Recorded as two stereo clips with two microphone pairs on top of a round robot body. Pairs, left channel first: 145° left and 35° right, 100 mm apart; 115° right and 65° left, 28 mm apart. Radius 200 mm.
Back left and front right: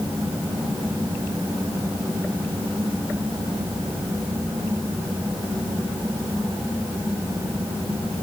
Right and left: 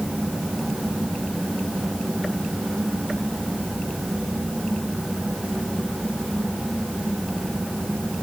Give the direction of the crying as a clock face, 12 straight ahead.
No crying in this recording.